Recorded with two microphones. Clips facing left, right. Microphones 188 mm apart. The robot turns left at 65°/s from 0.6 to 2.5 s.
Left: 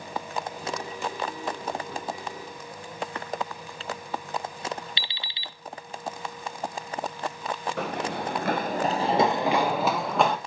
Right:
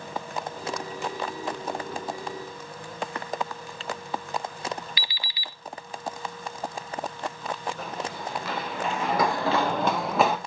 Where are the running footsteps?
75° left (ahead or behind), 1.7 m; by 10.4 s 5° right (ahead or behind), 2 m.